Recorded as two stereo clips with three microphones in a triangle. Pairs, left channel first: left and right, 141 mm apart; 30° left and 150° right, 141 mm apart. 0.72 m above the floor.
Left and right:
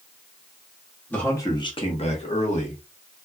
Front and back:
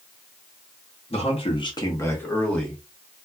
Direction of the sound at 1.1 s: 15° left.